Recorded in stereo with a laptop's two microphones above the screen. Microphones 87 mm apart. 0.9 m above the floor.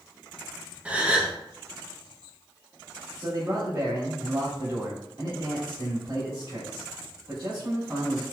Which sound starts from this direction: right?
A man speaking, at 3.2 s.